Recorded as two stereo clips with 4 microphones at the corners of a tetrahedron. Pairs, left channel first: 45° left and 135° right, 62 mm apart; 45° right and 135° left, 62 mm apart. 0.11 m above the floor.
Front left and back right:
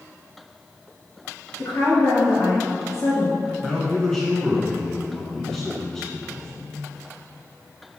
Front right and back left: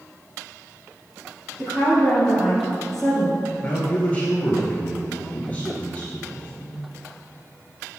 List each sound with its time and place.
1.6 s a woman speaking: 40° left, 2.5 m
3.6 s a man speaking: 25° right, 1.5 m